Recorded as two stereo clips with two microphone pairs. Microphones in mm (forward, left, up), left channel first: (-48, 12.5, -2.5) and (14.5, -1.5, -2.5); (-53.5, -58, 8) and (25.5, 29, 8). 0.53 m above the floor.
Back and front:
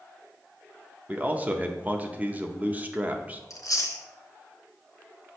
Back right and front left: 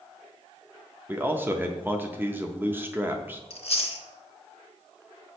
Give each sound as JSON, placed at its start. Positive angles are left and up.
{"t": 1.1, "sound": "a man speaking", "azimuth_deg": 0, "distance_m": 0.7}
{"t": 3.5, "sound": "chewing", "azimuth_deg": -165, "distance_m": 0.9}